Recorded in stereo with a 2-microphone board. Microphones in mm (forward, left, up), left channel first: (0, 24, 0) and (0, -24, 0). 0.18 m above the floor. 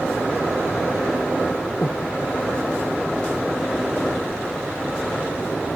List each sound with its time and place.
1.8 s breathing: 65° left (ahead or behind), 1.0 m